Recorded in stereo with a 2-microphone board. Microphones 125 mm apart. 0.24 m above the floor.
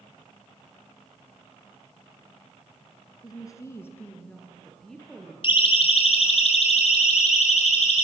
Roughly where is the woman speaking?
Left.